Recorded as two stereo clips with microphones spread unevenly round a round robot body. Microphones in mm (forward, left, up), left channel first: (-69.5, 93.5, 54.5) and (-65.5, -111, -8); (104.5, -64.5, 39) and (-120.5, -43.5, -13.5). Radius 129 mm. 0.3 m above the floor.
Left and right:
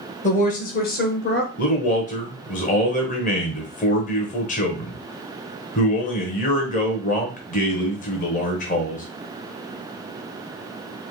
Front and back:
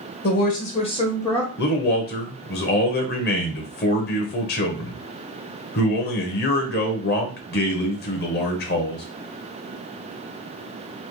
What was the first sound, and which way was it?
A woman speaking, 30° left.